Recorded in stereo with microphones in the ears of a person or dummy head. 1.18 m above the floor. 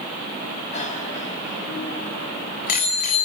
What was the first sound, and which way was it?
A bicycle bell, 50° left (ahead or behind).